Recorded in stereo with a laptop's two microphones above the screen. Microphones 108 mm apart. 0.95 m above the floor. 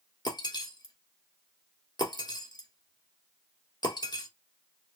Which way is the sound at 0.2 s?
40° left (ahead or behind).